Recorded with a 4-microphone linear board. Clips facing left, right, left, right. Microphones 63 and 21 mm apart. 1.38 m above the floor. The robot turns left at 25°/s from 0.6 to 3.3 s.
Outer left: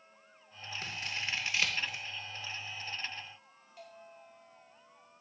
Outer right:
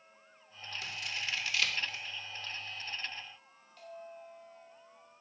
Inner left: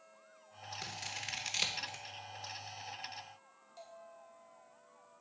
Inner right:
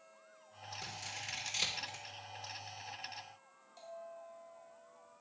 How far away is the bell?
About 2.5 m.